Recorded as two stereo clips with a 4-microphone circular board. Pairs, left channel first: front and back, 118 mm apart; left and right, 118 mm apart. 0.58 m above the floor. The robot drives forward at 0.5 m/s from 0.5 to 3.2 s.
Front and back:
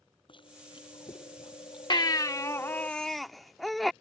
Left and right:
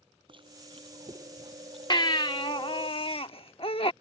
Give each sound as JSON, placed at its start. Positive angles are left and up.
{"t": 0.3, "sound": "chewing", "azimuth_deg": -45}
{"t": 1.9, "sound": "a baby crying", "azimuth_deg": 45}